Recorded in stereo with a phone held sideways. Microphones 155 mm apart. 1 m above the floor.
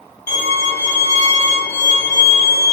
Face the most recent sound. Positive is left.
turn(degrees=20)  # may be behind; listen again after turning